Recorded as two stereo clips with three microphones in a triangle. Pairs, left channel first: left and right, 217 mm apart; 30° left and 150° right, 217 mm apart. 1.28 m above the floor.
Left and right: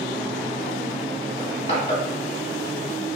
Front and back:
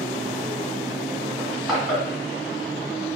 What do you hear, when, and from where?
1.4 s crushing: 125° left, 1.4 m